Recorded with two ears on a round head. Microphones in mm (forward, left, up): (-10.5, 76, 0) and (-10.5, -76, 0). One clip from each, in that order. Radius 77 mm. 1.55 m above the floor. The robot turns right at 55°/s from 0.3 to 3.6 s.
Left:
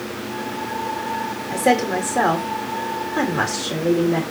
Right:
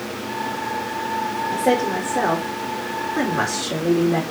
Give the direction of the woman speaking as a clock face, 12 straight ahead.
9 o'clock.